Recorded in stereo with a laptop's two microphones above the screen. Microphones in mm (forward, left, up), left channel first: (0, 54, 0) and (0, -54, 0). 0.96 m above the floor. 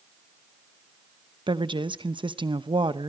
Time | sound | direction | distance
1.5 | a woman speaking | 55° right (ahead or behind) | 0.9 m